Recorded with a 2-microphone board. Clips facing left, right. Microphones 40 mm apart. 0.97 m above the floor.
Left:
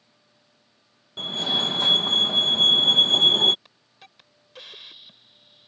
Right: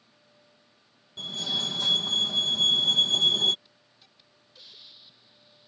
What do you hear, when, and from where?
1.2 s a fire alarm: 35° left (ahead or behind)
3.6 s a hiss: 65° left (ahead or behind)